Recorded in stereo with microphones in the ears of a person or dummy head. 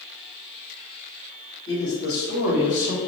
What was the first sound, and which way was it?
A man speaking, 50° left (ahead or behind).